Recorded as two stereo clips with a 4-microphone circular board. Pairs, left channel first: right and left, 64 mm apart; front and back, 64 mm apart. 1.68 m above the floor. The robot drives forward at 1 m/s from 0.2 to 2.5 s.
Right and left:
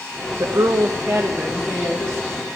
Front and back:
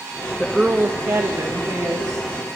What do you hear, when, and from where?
0.4 s a woman speaking: 75° left, 0.5 m; by 2.3 s 165° left, 1.8 m